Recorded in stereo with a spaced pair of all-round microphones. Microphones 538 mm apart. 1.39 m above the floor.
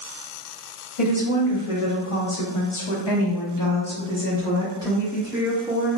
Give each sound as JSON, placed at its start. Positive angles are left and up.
{"t": 1.0, "sound": "a woman speaking", "side_deg": 70, "distance_m": 1.5}